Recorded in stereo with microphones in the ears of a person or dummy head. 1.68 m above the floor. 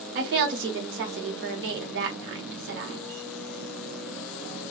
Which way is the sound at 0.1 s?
60° right (ahead or behind).